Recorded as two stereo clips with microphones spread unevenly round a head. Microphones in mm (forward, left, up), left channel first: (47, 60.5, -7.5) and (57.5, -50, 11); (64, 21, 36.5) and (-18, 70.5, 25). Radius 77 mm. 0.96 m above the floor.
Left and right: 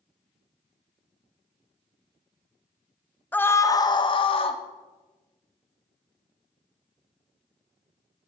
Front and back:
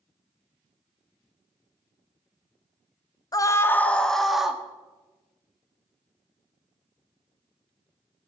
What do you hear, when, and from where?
3.3 s a scream: 20° left, 1.1 m; by 4.6 s 65° left, 1.8 m